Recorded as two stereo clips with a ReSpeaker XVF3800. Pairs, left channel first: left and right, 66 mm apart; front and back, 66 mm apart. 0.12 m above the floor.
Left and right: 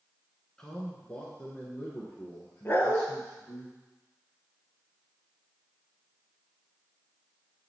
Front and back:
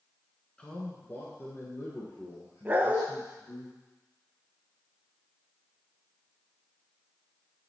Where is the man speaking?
30° left, 1.1 m.